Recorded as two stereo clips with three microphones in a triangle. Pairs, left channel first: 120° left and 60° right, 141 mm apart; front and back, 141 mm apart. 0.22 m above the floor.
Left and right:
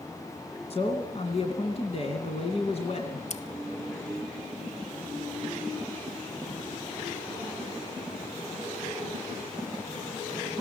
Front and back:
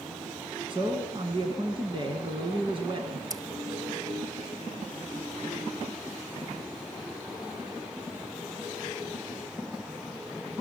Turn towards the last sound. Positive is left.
turn(degrees=120)